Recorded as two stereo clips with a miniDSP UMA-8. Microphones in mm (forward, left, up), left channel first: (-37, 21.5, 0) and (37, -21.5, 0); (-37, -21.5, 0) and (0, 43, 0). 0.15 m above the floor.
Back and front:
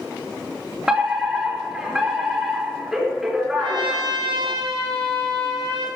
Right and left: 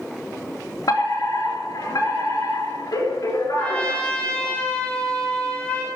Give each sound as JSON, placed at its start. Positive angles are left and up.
{"t": 0.9, "sound": "a fire alarm", "azimuth_deg": -115, "distance_m": 4.0}
{"t": 3.6, "sound": "a trumpet", "azimuth_deg": -50, "distance_m": 6.0}